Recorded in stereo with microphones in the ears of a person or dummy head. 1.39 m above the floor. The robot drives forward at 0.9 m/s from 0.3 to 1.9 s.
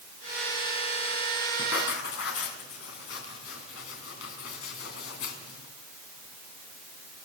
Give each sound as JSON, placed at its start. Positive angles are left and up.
{"t": 1.6, "sound": "writing", "side_deg": 70, "distance_m": 3.5}